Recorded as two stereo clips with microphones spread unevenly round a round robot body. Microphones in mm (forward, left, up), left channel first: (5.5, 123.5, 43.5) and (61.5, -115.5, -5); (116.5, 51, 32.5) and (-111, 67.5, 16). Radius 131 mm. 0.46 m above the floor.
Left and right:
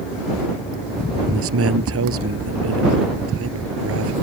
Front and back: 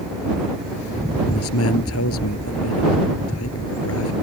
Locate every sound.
1.3 s a man speaking: 45° right